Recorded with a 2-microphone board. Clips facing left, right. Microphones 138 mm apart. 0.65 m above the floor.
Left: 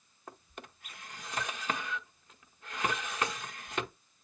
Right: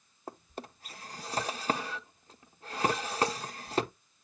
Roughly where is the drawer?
Right.